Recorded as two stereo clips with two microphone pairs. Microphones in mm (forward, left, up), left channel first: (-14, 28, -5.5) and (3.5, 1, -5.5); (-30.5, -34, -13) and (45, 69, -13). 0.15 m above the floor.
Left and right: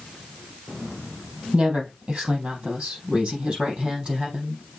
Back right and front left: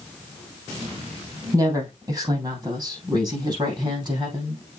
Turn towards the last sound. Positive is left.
turn(degrees=5)